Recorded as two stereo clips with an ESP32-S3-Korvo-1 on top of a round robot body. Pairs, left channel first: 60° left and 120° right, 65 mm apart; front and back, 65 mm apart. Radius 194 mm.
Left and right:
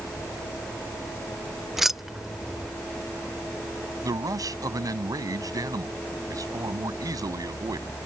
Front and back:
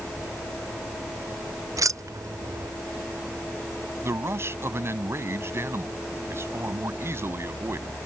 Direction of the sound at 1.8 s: 155° left.